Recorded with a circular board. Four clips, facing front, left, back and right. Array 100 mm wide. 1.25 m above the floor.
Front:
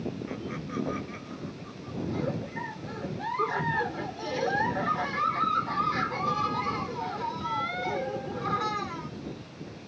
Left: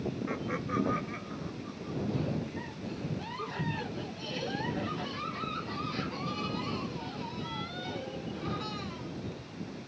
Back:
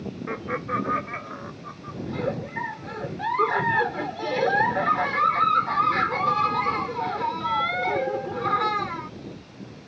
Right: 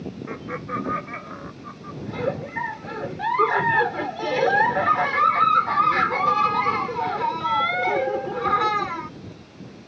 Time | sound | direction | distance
0.3 | laughter | 165° right | ?
2.1 | a giggle | 115° right | ?